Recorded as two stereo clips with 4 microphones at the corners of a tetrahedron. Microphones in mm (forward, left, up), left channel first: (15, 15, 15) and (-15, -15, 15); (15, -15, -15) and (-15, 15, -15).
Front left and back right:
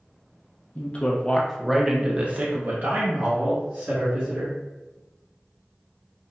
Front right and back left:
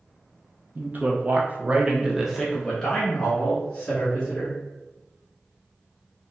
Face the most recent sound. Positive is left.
turn(degrees=-110)